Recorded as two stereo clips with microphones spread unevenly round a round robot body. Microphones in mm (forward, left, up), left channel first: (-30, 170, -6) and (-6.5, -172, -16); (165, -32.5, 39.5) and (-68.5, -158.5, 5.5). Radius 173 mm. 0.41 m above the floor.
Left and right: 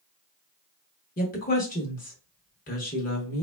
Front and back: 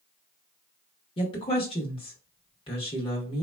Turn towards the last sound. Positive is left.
turn(degrees=85)